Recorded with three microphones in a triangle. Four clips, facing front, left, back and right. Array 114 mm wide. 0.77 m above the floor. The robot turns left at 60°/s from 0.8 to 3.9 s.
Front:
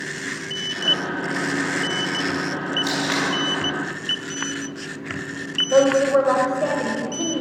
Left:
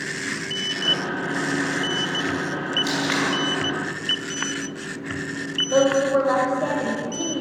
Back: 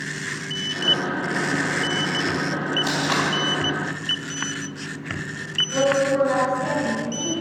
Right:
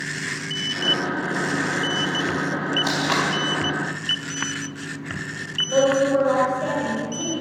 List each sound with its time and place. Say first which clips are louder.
2.8 s tape being pulled: even, even; 100° right, 4.5 m; by 3.3 s 125° right, 4.5 m
5.7 s a woman speaking: even, front 4 dB; 15° left, 3.5 m